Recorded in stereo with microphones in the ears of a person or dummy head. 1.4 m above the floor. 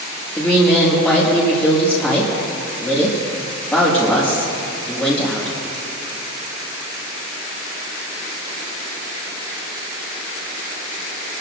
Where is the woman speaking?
5° left (ahead or behind), 1.9 m.